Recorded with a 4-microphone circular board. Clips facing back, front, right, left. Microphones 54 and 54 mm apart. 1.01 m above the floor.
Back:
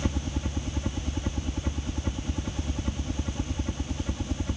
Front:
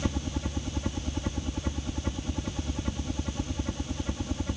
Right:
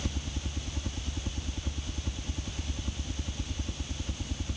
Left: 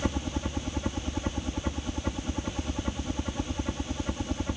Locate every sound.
0.0 s a helicopter: 85° left